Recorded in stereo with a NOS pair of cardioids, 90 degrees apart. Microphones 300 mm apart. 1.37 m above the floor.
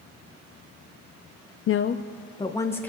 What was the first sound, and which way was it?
A woman speaking, 50° left.